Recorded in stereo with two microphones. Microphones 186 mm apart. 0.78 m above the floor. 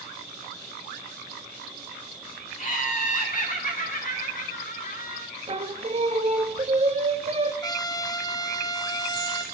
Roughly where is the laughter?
Left.